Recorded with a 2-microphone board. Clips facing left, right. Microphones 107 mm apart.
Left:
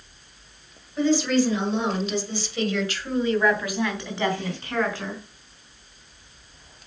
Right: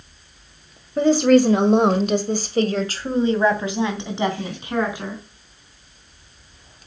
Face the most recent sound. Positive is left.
turn(degrees=-10)  # may be behind; listen again after turning